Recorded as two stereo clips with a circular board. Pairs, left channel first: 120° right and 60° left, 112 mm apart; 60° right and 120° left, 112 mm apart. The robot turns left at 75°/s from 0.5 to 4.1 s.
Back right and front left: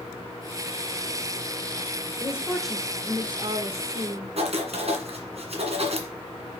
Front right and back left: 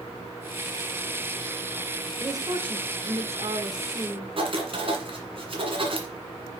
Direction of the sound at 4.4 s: 85° left.